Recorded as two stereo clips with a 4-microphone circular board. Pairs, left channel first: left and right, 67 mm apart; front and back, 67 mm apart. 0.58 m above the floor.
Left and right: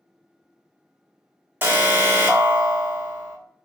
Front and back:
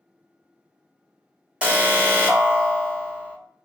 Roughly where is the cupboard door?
I don't hear a cupboard door.